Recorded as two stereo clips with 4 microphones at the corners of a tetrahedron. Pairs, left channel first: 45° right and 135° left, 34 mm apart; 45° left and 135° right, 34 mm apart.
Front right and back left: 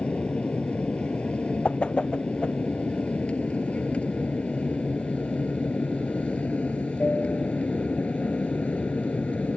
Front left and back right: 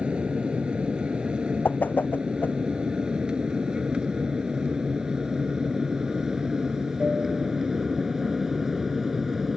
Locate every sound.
0.0 s an aircraft: 90° right; by 9.6 s 60° right
1.6 s a whoosh: 10° left